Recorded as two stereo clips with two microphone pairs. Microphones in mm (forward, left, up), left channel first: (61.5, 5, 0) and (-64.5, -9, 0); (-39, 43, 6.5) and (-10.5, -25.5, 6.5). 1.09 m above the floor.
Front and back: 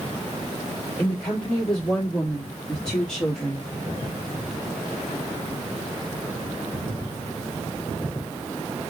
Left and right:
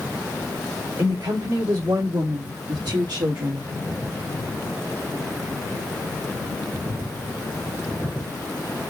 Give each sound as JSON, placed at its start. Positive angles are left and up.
{"t": 1.0, "sound": "a woman speaking", "azimuth_deg": -75, "distance_m": 2.5}